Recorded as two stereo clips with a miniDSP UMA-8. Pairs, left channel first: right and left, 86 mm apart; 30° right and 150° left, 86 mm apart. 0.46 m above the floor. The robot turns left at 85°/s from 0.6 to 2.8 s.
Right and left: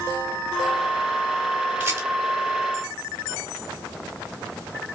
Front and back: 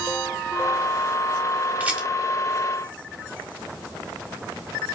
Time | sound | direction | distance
1.8 | a rattle | 110° left | 1.3 m